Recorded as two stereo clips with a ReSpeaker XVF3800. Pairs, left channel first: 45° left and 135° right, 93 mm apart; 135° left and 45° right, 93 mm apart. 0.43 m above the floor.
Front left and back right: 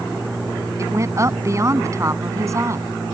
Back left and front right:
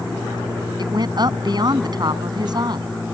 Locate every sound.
0.8 s a woman speaking: 80° right